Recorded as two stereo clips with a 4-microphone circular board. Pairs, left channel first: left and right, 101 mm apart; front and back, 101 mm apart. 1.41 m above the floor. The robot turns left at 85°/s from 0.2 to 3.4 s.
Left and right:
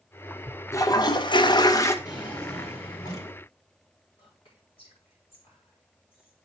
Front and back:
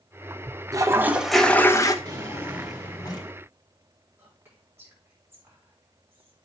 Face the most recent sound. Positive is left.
turn(degrees=115)